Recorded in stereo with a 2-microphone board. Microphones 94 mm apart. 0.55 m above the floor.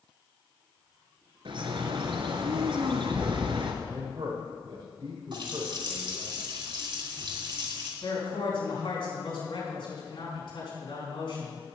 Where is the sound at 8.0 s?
65° left (ahead or behind), 5 m.